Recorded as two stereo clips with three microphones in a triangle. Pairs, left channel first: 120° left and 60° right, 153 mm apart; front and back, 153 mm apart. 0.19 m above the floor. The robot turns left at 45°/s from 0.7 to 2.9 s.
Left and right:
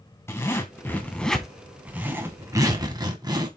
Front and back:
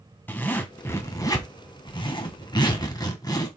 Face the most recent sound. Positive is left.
turn(degrees=-35)